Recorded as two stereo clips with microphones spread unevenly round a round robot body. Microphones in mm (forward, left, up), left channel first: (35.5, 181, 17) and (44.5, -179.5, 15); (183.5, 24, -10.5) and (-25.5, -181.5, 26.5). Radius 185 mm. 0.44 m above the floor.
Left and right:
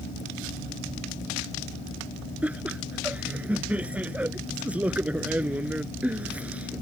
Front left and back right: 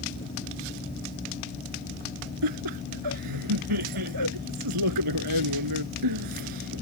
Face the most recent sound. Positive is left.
turn(degrees=-175)